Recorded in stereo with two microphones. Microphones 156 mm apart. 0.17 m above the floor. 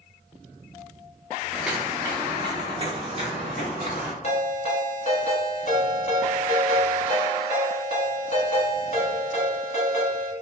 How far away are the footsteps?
About 0.8 m.